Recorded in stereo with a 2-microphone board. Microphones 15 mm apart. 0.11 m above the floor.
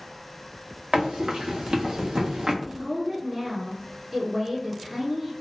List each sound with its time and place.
0.9 s running footsteps: 80° right, 1.9 m; by 2.5 s 65° right (ahead or behind), 1.0 m
2.6 s a woman speaking: 35° right (ahead or behind), 1.5 m